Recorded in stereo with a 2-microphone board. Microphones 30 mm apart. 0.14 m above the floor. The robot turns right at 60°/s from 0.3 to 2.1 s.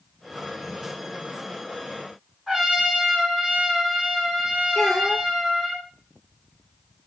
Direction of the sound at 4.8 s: 15° left (ahead or behind).